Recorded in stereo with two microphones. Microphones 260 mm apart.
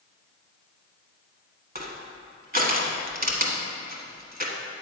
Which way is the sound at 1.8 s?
35° right (ahead or behind).